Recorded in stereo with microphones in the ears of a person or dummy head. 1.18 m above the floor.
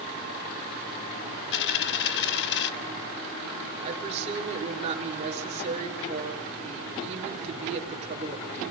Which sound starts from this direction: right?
A woman speaking, at 3.8 s.